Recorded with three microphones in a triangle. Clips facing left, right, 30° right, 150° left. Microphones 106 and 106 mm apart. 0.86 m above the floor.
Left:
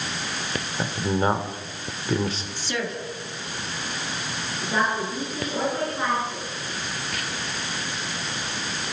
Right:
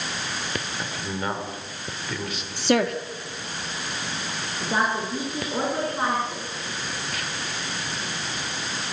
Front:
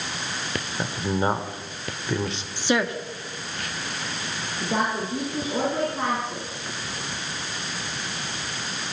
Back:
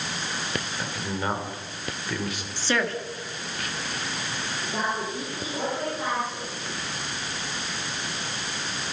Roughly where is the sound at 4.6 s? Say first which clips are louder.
Even, front 4 dB; ahead right.